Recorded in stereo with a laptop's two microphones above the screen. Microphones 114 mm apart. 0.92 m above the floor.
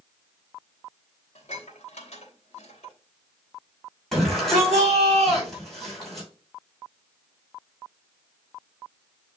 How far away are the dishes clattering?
About 3 m.